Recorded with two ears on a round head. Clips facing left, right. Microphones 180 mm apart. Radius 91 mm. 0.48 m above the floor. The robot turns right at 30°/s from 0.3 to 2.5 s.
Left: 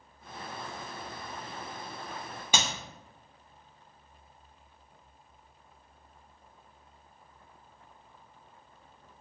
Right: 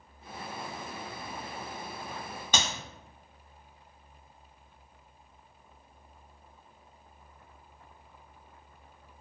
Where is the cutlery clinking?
I don't hear cutlery clinking.